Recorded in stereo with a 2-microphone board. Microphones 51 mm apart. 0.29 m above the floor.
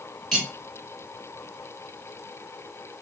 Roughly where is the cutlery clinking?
Centre.